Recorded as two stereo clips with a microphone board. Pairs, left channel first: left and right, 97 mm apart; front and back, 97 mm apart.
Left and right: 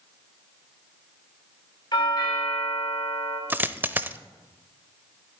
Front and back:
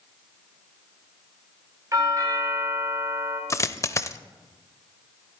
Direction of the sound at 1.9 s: 125° left.